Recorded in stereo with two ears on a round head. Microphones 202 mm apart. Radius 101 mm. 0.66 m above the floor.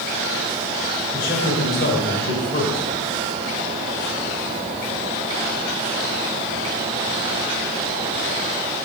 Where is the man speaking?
45° left (ahead or behind), 3 m.